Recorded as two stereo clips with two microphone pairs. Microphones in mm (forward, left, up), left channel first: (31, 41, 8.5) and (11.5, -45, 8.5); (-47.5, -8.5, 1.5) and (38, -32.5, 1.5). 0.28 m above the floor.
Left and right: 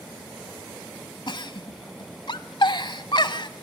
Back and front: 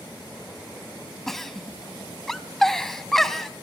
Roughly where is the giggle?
Left.